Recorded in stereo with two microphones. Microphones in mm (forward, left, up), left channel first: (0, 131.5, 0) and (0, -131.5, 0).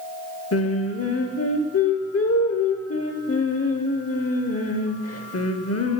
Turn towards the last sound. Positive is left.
turn(degrees=65)  # may be behind; listen again after turning